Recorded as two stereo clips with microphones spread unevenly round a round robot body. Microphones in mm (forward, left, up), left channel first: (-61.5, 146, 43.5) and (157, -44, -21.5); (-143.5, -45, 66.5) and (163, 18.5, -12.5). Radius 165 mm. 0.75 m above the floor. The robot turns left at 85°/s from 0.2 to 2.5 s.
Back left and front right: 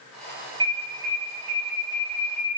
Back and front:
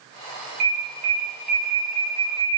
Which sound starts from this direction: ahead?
An alarm, at 0.6 s.